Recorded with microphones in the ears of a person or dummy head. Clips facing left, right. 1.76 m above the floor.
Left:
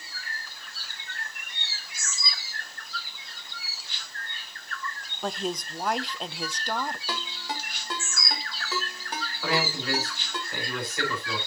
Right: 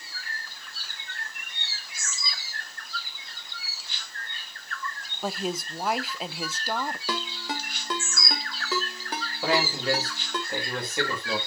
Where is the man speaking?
20° right (ahead or behind), 4 m.